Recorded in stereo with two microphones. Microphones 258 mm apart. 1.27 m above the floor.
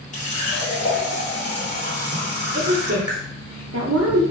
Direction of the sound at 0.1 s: 30° left (ahead or behind).